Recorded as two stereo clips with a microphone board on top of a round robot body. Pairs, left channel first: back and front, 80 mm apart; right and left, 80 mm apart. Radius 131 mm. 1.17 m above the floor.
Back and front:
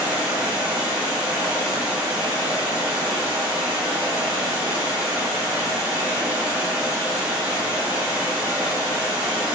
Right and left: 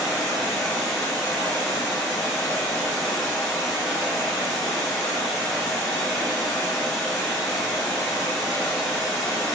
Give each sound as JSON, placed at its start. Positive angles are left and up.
{"t": 0.0, "sound": "running water", "azimuth_deg": -25, "distance_m": 0.9}